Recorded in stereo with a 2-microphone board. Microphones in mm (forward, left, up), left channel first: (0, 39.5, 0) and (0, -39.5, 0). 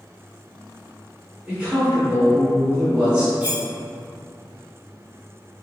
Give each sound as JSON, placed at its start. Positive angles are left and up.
{"t": 1.5, "sound": "a man speaking", "side_deg": -15, "distance_m": 1.4}
{"t": 3.4, "sound": "cutlery clinking", "side_deg": -20, "distance_m": 0.6}